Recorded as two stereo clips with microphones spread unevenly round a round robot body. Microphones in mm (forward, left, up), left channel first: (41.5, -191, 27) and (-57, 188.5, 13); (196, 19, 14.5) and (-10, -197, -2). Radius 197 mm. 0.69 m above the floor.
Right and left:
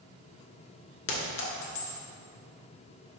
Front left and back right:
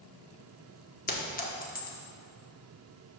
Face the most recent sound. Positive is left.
turn(degrees=-15)